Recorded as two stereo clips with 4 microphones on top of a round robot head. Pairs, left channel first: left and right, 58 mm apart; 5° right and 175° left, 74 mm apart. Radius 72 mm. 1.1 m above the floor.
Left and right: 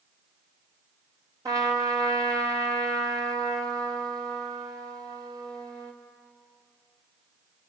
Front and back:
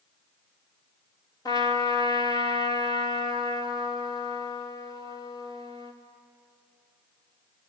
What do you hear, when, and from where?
1.4 s a trumpet: 50° right, 2.5 m